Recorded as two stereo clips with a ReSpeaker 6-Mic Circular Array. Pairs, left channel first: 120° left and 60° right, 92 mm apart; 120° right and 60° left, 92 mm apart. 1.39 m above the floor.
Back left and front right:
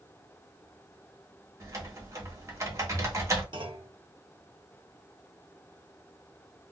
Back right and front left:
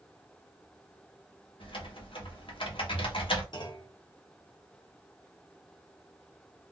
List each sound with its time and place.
1.6 s typing on a keyboard: 110° right, 1.0 m
3.5 s a clunk: 85° right, 0.8 m